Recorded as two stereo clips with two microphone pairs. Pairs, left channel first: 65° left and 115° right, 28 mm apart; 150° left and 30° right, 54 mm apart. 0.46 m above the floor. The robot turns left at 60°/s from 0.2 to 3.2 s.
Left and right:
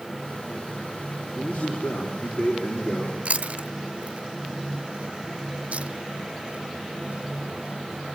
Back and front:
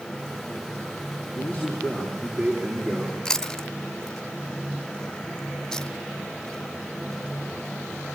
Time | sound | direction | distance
1.3 | a man speaking | 120° left | 8 m
3.2 | chewing | 135° right | 0.8 m